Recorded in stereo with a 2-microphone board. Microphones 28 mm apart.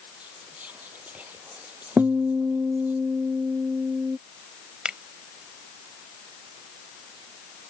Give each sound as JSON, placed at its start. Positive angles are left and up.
{"t": 0.2, "sound": "whispering", "side_deg": -85}
{"t": 2.0, "sound": "a guitar", "side_deg": -85}
{"t": 4.8, "sound": "a finger snap", "side_deg": -40}